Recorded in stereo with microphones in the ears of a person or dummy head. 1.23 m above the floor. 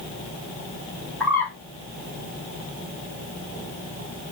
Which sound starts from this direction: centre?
A bird, at 1.2 s.